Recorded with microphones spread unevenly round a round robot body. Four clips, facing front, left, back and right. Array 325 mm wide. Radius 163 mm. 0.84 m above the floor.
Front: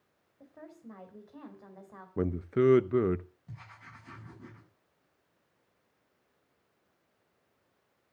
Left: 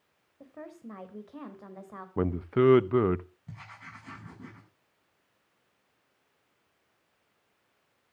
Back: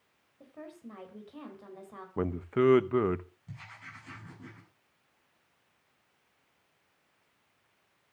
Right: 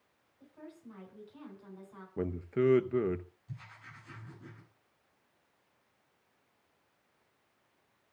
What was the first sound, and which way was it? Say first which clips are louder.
A woman speaking: left 6 dB, back 3 dB; 110° left.